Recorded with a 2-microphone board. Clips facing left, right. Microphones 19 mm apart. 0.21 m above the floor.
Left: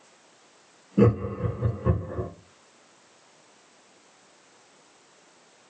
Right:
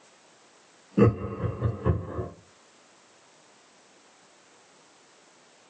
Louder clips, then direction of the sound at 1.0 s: Left 1 dB; 15° right (ahead or behind).